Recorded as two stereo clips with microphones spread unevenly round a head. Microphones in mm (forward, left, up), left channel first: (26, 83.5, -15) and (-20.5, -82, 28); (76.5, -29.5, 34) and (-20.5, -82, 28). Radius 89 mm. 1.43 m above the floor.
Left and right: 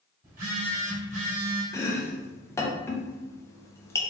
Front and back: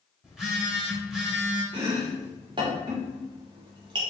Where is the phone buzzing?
65° right, 1.7 m.